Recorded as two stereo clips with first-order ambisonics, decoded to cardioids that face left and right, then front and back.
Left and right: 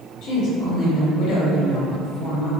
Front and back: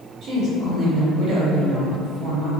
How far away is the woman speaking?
About 1.8 m.